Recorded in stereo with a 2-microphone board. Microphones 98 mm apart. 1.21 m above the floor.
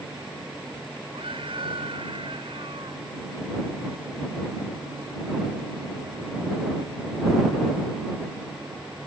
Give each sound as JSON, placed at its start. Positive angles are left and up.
{"t": 1.1, "sound": "a scream", "side_deg": -65}